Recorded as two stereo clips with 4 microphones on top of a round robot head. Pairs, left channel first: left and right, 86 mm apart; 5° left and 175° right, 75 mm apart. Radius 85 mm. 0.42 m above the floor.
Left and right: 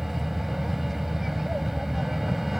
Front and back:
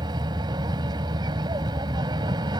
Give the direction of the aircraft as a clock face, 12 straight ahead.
6 o'clock.